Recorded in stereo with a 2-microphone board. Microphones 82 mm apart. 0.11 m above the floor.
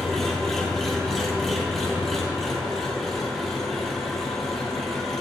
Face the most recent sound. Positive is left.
turn(degrees=5)  # may be behind; listen again after turning